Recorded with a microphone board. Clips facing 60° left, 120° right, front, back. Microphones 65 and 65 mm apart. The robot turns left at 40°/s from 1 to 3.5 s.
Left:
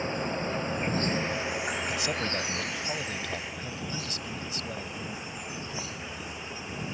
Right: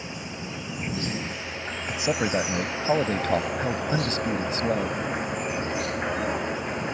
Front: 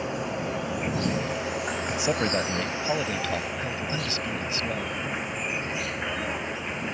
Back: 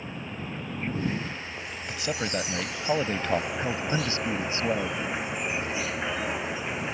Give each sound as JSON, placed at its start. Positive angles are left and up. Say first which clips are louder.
{"t": 0.0, "sound": "an insect", "louder": "left 5 dB, front 8 dB", "azimuth_deg": 10}
{"t": 1.9, "sound": "a man speaking", "louder": "right 5 dB, front 3 dB", "azimuth_deg": -60}